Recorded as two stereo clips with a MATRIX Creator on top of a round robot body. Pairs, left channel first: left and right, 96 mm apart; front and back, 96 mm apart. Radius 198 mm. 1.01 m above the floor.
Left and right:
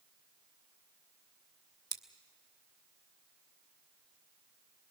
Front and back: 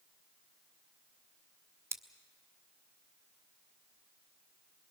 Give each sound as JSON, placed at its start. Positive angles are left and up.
{"t": 1.9, "sound": "scissors", "azimuth_deg": -120, "distance_m": 1.1}